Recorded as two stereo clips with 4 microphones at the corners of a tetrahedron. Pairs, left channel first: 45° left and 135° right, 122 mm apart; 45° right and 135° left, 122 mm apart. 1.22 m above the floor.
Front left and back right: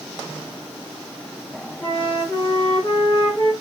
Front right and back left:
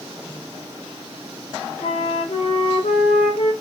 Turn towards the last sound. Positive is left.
turn(degrees=-20)